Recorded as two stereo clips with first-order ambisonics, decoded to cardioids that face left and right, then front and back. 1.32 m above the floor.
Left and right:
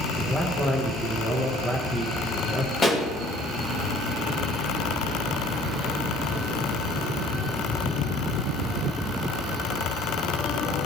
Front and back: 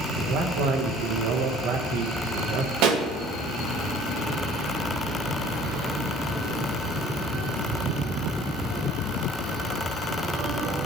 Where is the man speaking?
170° left, 1.2 m.